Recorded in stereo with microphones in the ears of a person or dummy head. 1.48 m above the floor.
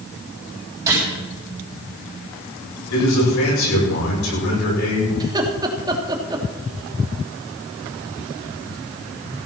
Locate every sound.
0.9 s a gunshot: 20° right (ahead or behind), 7.5 m
2.9 s a man speaking: 85° left, 8 m
5.2 s laughter: 25° right (ahead or behind), 3 m